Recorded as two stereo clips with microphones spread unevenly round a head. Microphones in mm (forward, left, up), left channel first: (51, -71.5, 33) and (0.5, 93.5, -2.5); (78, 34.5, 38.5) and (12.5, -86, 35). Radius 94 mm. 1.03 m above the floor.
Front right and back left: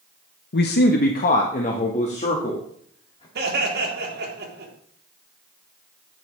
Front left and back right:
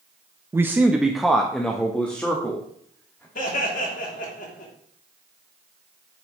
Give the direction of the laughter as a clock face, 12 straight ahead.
9 o'clock.